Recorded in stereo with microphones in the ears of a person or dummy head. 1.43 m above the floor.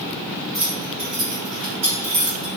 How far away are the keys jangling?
About 1.4 m.